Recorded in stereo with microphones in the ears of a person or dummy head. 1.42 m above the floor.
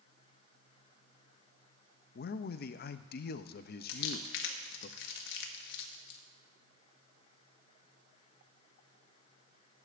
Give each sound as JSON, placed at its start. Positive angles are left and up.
{"t": 2.1, "sound": "a man speaking", "side_deg": 50, "distance_m": 0.5}
{"t": 3.9, "sound": "crumpling", "side_deg": 70, "distance_m": 1.4}